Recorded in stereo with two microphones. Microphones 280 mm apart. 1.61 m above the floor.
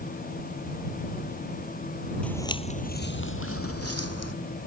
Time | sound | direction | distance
2.2 | footsteps | 5° left (ahead or behind) | ?